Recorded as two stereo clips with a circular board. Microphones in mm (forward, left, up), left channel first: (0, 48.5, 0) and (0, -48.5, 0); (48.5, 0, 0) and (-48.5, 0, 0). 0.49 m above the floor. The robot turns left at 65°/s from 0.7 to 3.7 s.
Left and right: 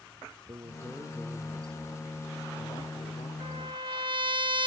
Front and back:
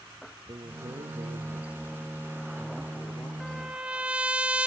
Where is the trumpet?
85° right; by 4.7 s 100° right.